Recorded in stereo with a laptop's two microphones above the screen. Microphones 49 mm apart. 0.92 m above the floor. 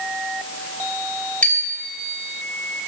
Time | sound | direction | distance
1.4 | a bicycle bell | 25° left (ahead or behind) | 3 m